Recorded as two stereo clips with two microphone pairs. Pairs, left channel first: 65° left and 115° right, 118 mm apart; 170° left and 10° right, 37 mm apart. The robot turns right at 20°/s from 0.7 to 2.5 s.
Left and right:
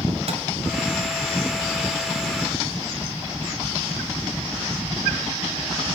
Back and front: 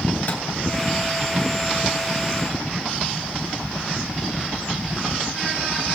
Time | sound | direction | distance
0.3 | a microwave | 145° right | 2.5 m